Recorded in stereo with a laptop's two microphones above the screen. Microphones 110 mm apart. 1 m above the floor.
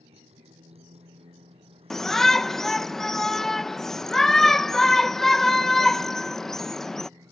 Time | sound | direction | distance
0.0 | a motorcycle | 70° right (ahead or behind) | ?
1.9 | a shout | 5° left (ahead or behind) | ?